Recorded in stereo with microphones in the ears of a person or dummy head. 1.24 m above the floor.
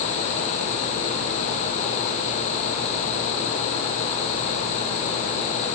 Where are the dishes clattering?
I don't hear dishes clattering.